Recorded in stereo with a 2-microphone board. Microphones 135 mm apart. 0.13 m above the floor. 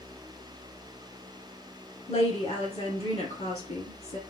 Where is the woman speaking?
50° left (ahead or behind), 2.5 m.